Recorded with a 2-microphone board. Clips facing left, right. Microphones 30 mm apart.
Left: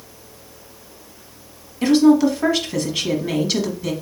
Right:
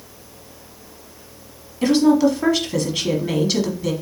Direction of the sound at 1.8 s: Centre (ahead or behind).